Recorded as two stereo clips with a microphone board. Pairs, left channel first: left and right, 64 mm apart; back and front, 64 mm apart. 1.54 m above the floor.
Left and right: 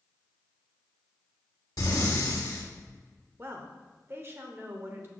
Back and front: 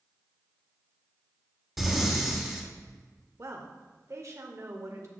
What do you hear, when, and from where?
1.8 s breathing: 90° left, 1.8 m
3.4 s a woman speaking: 40° right, 0.7 m